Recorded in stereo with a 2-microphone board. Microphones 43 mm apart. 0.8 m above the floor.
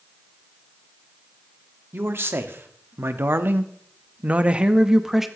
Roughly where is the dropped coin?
No dropped coin in this recording.